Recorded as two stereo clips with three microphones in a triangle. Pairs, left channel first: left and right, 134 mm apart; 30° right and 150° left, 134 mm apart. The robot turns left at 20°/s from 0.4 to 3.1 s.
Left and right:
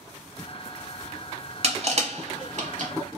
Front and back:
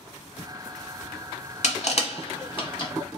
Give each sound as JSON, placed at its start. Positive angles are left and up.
{"t": 1.6, "sound": "crushing", "azimuth_deg": -55, "distance_m": 0.7}